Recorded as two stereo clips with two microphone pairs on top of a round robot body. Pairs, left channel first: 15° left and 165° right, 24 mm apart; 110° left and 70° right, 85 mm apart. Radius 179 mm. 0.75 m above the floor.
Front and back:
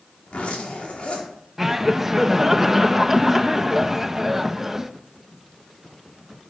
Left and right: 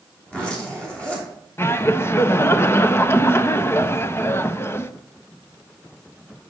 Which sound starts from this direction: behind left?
Laughter, at 1.6 s.